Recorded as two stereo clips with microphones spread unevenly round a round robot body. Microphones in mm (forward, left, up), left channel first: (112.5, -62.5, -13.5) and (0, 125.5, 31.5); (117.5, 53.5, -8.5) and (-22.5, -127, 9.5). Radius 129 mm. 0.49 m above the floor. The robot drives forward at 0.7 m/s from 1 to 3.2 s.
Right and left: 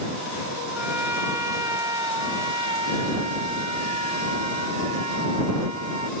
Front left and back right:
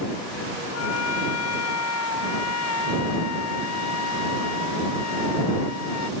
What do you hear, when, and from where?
0.7 s a trumpet: 40° left; by 6.1 s 60° left